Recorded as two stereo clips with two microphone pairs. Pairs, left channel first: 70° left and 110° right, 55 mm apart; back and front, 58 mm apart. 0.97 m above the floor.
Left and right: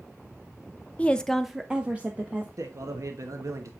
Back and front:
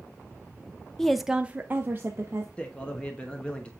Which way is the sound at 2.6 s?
110° right.